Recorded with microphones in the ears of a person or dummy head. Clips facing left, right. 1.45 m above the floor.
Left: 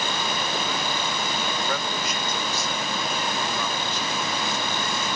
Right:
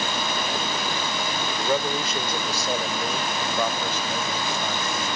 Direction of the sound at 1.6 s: 25° right (ahead or behind).